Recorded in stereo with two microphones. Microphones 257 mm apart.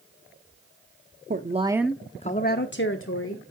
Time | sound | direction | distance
1.3 | a woman speaking | 40° right (ahead or behind) | 0.8 m